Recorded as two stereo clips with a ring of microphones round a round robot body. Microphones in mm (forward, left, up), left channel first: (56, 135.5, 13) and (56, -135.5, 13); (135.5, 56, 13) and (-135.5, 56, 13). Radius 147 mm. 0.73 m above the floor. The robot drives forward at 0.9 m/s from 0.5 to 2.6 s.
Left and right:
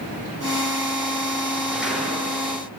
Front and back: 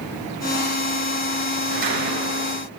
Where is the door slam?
Straight behind, 6.5 m.